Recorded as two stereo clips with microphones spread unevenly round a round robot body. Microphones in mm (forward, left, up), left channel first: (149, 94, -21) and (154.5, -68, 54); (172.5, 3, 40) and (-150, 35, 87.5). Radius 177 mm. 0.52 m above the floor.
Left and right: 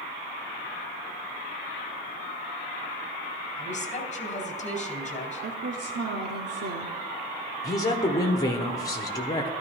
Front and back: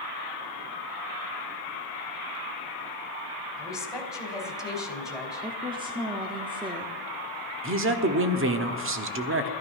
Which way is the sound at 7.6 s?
125° left.